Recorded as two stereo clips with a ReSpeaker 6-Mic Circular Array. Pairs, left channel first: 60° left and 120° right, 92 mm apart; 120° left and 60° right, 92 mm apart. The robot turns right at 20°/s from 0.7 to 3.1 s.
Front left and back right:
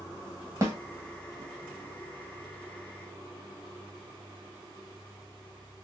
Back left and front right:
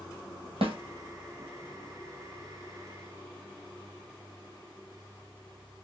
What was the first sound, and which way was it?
A snare drum, 65° right.